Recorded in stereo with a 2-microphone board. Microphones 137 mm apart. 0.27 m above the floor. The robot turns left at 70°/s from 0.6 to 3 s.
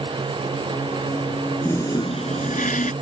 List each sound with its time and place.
1.6 s a toilet flushing: 165° left; by 2.9 s 75° left